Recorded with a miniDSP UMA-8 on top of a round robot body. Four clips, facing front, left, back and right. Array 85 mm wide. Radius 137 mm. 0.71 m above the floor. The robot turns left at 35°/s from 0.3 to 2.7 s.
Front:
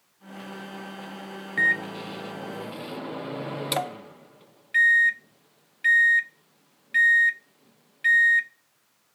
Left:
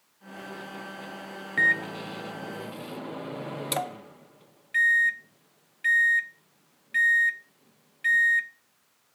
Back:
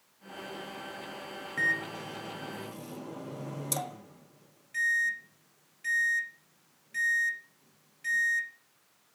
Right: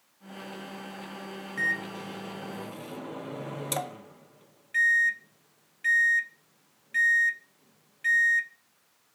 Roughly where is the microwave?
Ahead left.